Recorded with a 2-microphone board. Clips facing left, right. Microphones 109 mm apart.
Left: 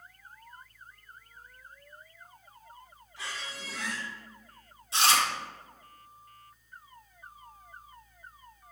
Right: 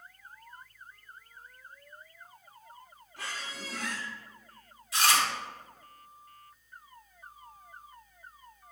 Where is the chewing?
30° left (ahead or behind), 1.9 m.